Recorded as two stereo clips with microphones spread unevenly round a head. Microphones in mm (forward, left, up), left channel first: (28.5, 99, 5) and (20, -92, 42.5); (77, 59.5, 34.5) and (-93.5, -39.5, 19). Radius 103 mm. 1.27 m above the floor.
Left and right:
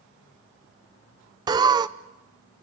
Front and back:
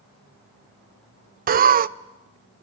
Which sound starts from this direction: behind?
Laughter, at 1.5 s.